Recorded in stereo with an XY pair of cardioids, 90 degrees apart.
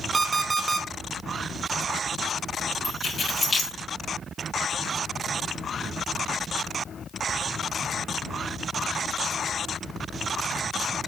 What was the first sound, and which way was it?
An alarm clock, 35° right.